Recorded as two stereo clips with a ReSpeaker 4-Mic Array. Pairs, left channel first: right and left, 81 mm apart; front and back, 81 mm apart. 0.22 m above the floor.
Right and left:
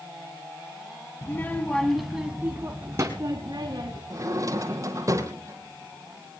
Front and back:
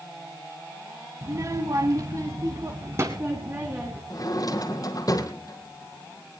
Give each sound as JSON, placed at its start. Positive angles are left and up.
{"t": 1.2, "sound": "a child speaking", "azimuth_deg": -140, "distance_m": 1.4}
{"t": 4.1, "sound": "a drawer", "azimuth_deg": 40, "distance_m": 1.8}